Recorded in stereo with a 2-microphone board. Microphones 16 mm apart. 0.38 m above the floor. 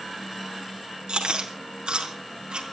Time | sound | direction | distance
1.1 | chewing | 80° right | 4.5 m